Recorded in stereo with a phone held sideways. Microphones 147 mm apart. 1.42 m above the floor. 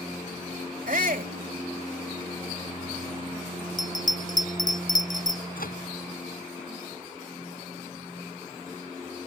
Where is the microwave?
75° left (ahead or behind).